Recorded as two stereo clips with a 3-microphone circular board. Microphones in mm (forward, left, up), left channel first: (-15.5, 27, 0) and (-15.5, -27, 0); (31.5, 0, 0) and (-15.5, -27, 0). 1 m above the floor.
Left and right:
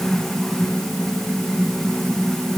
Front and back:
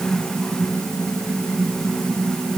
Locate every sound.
Only background noise.